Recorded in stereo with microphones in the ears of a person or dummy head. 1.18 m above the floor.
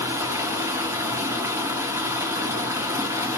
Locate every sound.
0.0 s running water: 10° right (ahead or behind), 0.7 m